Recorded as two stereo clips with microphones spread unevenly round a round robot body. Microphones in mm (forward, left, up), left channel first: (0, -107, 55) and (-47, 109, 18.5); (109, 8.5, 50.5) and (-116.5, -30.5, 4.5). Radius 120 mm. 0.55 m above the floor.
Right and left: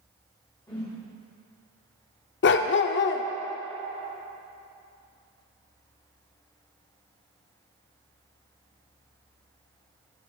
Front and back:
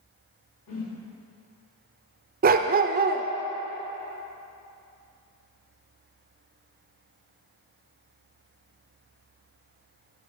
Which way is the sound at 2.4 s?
120° right.